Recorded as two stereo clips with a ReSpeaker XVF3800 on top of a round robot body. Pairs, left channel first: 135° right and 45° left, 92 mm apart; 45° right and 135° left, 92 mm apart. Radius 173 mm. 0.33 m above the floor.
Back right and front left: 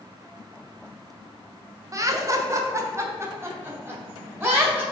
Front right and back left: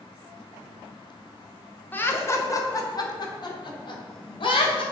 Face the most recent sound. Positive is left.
turn(degrees=-20)